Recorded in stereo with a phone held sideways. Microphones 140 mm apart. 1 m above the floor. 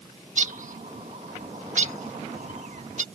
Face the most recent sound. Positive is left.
turn(degrees=-65)  # may be behind; listen again after turning